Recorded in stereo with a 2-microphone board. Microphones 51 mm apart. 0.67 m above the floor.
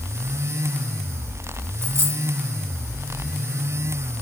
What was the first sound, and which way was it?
A dropped coin, 45° right (ahead or behind).